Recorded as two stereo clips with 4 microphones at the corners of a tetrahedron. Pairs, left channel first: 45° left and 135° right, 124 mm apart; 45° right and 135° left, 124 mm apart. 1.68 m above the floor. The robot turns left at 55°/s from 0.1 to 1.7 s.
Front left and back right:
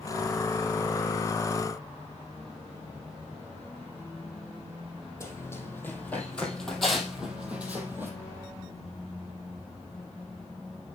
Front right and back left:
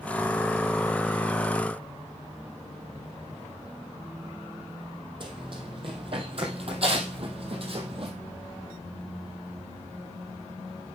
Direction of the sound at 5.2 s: 105° left.